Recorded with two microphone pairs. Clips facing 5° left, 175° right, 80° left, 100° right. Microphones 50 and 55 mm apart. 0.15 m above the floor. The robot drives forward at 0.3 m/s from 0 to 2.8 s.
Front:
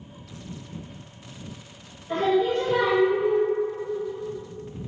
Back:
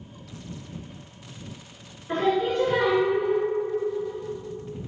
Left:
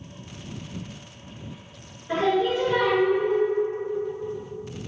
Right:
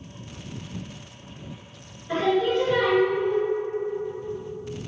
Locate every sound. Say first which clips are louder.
2.1 s singing: front 1 dB, even; 150° left, 1.6 m; by 3.4 s 155° left, 1.8 m